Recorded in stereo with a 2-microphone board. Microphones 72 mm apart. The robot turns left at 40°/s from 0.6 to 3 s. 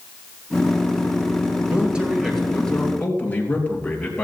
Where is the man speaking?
155° right, 3 m; by 4.2 s 155° left, 3 m.